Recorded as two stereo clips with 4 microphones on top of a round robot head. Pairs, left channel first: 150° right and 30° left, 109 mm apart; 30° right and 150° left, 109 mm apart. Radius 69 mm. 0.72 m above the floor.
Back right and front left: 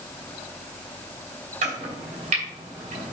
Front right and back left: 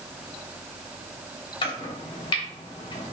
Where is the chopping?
10° left, 3 m.